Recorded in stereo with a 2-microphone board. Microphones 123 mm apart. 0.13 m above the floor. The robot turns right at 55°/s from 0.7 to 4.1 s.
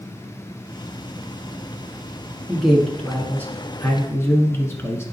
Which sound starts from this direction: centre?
A man speaking, at 2.5 s.